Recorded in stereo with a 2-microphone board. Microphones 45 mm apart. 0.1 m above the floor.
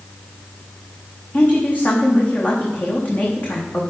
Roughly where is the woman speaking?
Left.